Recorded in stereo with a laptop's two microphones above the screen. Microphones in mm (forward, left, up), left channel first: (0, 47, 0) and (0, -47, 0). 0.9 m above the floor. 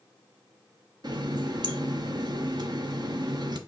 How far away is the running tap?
About 0.8 m.